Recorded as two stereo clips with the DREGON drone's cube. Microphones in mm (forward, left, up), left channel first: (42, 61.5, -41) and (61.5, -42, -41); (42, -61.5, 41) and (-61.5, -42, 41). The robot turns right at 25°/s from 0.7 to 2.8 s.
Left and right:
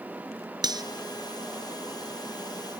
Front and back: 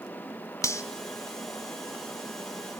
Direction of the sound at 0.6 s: 60° right.